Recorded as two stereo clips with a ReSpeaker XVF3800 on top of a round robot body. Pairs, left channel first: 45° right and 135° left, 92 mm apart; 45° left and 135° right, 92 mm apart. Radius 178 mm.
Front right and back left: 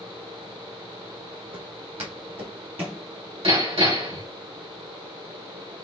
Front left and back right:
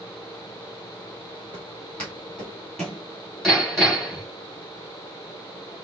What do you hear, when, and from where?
1.5 s footsteps: 120° left, 1.7 m; by 3.0 s 130° left, 1.0 m
3.4 s hammering: 135° left, 3.5 m